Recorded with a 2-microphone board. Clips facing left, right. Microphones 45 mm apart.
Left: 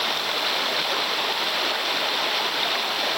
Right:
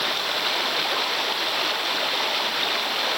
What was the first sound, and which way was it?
Only background noise.